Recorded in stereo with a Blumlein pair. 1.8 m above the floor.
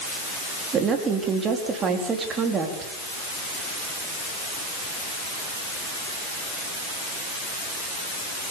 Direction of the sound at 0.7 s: 20° right.